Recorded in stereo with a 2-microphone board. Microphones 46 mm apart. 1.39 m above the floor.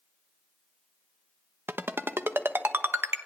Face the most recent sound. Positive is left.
turn(degrees=-65)  # may be behind; listen again after turning